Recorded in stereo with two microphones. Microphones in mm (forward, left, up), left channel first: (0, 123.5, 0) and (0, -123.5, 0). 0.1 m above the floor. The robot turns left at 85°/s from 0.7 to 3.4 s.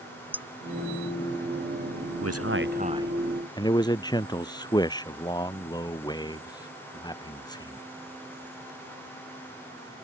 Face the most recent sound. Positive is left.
turn(degrees=165)